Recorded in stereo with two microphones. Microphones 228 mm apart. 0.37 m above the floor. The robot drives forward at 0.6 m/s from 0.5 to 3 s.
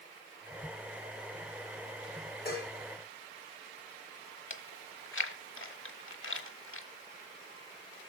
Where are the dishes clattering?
45° left (ahead or behind), 5 m.